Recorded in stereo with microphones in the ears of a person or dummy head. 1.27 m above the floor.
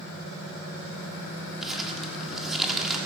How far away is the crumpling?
About 1.4 m.